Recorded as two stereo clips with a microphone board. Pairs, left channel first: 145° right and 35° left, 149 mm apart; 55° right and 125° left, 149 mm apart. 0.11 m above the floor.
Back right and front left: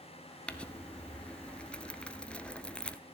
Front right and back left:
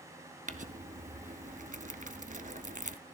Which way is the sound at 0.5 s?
130° left.